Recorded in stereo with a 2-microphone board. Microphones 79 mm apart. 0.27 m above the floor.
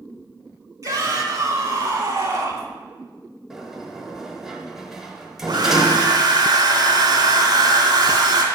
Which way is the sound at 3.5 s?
5° right (ahead or behind).